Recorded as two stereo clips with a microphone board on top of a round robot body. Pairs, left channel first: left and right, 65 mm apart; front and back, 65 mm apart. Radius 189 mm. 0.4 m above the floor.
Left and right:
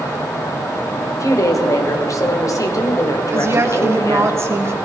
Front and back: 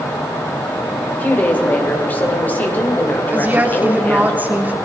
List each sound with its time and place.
1.1 s a woman speaking: 60° left, 2 m
3.3 s a woman speaking: 125° right, 1.8 m